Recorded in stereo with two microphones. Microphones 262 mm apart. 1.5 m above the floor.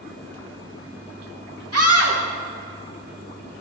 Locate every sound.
1.7 s a scream: 65° right (ahead or behind), 1.8 m